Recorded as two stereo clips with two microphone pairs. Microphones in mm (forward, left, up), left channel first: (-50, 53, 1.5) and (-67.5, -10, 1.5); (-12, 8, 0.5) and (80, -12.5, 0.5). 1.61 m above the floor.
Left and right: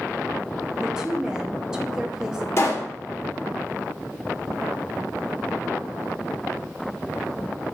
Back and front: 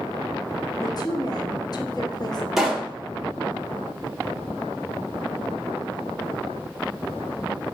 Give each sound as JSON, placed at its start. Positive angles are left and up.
{"t": 0.8, "sound": "a woman speaking", "azimuth_deg": 180, "distance_m": 0.7}
{"t": 2.6, "sound": "a pop", "azimuth_deg": 70, "distance_m": 0.9}